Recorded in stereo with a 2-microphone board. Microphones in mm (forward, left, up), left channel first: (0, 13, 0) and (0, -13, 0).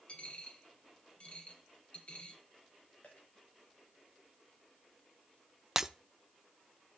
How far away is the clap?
I don't hear a clap.